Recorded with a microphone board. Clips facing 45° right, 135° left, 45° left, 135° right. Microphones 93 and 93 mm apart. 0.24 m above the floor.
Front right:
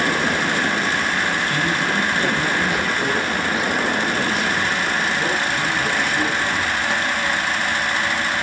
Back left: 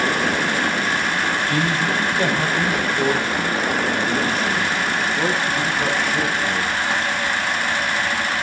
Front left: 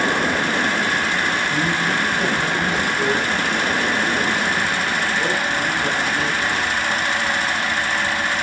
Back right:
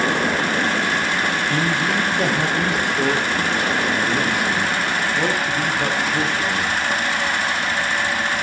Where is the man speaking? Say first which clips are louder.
Back left 1 dB, even; 170° right, 6 m.